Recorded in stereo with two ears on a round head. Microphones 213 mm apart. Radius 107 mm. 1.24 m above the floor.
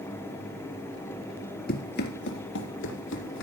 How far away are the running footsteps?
About 1.5 m.